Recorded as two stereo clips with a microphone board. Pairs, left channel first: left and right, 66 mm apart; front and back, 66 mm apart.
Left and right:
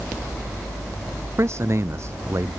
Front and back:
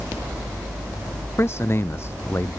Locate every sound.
1.4 s a man speaking: 45° right